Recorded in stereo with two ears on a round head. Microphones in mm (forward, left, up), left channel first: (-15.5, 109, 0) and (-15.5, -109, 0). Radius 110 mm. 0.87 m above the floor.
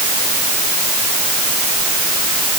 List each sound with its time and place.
Only background noise.